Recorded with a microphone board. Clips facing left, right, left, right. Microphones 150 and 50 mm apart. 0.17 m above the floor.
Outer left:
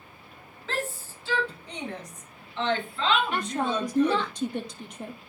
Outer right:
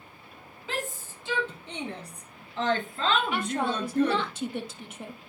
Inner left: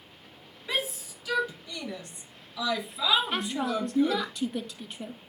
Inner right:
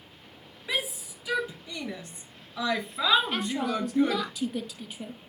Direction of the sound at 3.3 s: 5° right (ahead or behind).